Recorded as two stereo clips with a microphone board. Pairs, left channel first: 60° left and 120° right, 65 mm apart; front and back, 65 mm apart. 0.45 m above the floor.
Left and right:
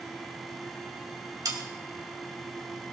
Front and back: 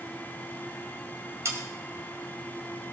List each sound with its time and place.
1.4 s sawing: 135° right, 2.0 m